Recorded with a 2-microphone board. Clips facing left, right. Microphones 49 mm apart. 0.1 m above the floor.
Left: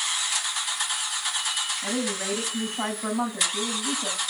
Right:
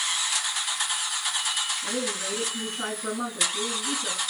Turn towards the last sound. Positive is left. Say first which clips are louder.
# left 2 dB
turn(degrees=80)